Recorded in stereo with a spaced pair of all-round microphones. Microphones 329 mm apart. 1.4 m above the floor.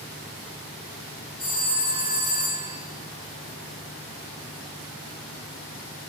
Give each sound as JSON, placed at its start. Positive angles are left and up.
{"t": 1.4, "sound": "a phone ringing", "side_deg": -40, "distance_m": 8.0}